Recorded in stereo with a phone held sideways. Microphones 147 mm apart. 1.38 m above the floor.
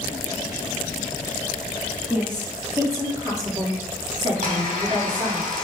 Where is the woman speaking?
10° right (ahead or behind), 3 m; by 5.4 s 45° right (ahead or behind), 3 m.